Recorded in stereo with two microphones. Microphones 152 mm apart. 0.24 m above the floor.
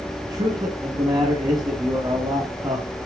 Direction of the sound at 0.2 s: 25° right (ahead or behind).